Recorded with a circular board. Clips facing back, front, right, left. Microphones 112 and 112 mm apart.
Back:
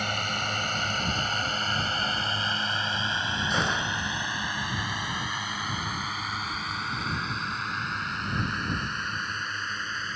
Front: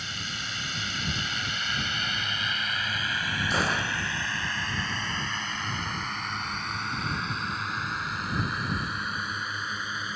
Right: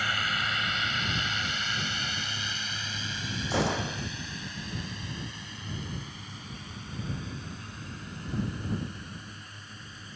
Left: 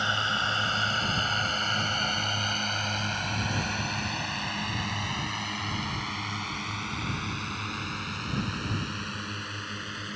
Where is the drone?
155° left; by 10.2 s 80° left.